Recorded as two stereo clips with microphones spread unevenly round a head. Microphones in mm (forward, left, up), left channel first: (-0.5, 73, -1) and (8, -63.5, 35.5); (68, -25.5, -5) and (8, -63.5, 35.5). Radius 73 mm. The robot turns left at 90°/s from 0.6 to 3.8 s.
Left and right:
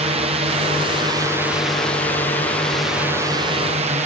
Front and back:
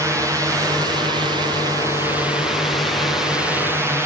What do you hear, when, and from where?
0.0 s a drone: 80° right; by 4.1 s 70° right